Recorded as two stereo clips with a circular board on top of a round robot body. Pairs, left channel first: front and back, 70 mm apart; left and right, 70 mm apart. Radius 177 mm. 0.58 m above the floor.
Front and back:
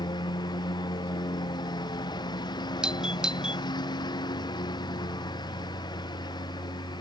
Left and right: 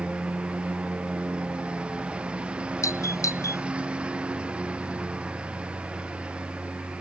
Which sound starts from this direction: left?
A doorbell, at 2.8 s.